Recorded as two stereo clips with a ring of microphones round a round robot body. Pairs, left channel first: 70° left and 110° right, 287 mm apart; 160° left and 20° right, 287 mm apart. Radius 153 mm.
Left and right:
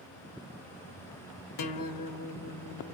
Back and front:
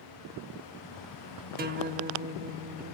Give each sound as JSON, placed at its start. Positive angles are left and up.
{"t": 1.6, "sound": "a guitar", "azimuth_deg": 40, "distance_m": 0.9}